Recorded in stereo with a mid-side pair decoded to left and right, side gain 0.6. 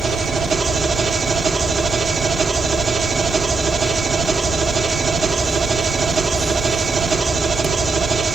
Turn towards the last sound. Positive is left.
turn(degrees=-35)